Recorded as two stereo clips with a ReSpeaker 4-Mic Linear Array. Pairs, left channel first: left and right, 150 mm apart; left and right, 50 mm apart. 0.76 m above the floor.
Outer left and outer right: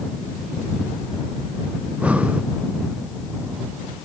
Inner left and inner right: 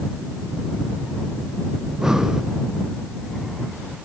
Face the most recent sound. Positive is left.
turn(degrees=-10)  # may be behind; listen again after turning